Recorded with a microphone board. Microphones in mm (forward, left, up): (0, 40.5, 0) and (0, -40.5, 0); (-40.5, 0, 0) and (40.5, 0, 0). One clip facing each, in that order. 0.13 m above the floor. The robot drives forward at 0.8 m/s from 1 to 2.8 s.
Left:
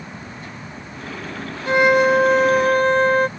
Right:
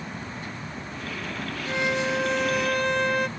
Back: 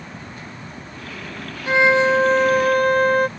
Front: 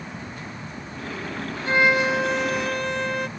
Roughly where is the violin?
Left.